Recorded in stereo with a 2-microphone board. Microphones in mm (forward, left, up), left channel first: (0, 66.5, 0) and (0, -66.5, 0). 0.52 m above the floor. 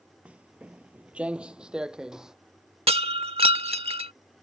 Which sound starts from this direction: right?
Breaking glass, at 2.9 s.